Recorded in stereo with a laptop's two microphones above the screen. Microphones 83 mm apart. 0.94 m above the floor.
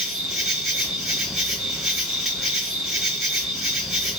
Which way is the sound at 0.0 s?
Centre (ahead or behind).